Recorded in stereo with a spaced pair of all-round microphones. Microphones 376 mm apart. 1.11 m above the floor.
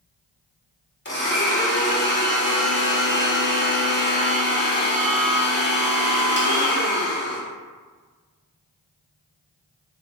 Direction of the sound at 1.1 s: 30° left (ahead or behind).